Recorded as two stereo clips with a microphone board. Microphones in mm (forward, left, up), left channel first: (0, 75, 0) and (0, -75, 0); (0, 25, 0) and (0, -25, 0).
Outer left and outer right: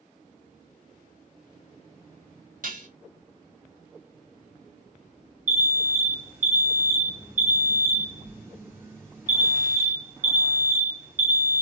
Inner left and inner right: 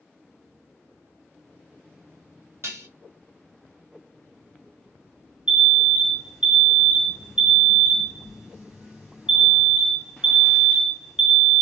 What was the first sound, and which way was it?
Dishes clattering, 65° right (ahead or behind).